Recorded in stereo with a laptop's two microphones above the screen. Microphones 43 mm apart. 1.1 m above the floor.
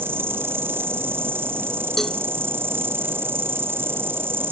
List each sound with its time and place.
0.0 s an insect: 60° right (ahead or behind)
2.0 s a cowbell: 5° left (ahead or behind)